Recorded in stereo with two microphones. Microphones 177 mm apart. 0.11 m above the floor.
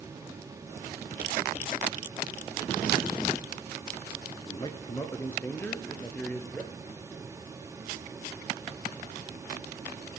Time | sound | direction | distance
4.5 | a man speaking | 25° left (ahead or behind) | 1.2 m